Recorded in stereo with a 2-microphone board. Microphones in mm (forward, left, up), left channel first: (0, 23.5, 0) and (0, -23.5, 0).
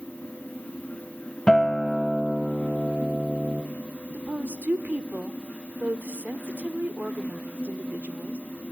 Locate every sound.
1.5 s a guitar: 10° left (ahead or behind), 1.5 m
4.1 s a woman speaking: 35° right (ahead or behind), 1.1 m